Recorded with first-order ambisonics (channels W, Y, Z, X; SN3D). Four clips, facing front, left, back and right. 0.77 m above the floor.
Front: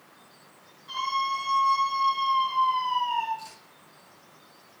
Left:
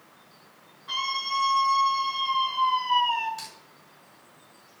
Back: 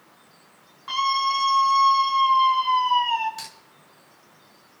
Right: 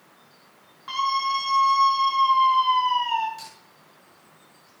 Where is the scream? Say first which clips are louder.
Right 5 dB, back 5 dB; 145° right, 6.5 m; by 3.3 s 130° right, 5.5 m.